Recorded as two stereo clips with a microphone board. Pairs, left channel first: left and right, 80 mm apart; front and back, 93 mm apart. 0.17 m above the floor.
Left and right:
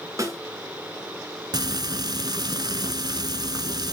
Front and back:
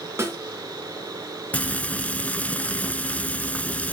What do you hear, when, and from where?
0.2 s a snare drum: 125° right, 3 m
1.5 s frying: 75° right, 0.7 m